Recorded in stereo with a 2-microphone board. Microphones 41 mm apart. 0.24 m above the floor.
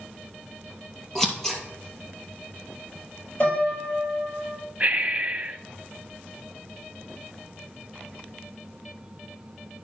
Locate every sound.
1.1 s scissors: 10° left (ahead or behind), 2.5 m
3.4 s a piano: 35° left (ahead or behind), 4.5 m
4.8 s breathing: 35° right (ahead or behind), 0.5 m